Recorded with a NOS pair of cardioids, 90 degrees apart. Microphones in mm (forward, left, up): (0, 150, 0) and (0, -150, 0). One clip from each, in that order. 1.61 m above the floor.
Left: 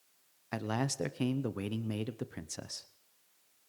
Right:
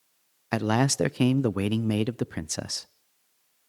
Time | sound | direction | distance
0.5 | a man speaking | 45° right | 0.6 m